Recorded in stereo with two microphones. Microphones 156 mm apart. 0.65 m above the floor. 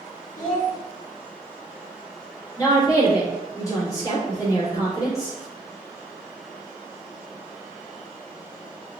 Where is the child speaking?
60° left (ahead or behind), 1.1 m.